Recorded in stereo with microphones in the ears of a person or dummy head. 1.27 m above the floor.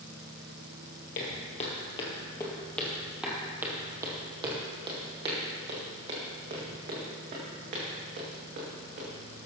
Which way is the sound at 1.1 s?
35° left (ahead or behind).